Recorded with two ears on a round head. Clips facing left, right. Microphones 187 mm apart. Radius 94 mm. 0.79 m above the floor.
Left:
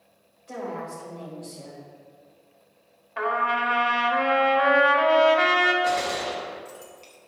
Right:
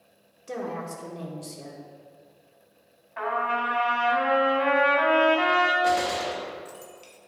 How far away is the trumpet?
About 1.6 m.